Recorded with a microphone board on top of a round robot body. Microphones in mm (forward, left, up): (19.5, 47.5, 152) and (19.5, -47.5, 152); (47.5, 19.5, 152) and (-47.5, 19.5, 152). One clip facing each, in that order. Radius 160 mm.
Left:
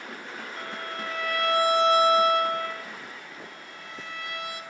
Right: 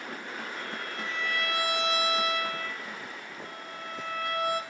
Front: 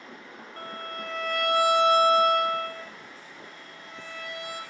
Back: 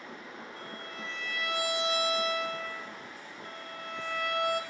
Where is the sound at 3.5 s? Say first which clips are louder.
Right 3 dB, back 4 dB; 145° right, 2 m.